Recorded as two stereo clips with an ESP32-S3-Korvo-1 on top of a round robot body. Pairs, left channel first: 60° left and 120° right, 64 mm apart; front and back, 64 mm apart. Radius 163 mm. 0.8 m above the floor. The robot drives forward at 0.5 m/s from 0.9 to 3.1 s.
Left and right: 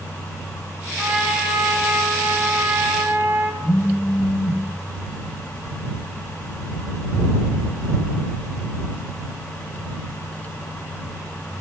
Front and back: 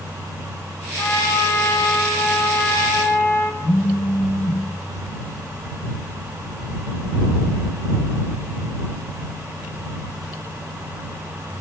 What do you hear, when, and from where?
1.0 s a trumpet: 45° right, 6.5 m; by 3.5 s 55° right, 5.5 m
3.6 s a phone buzzing: 20° left, 9.5 m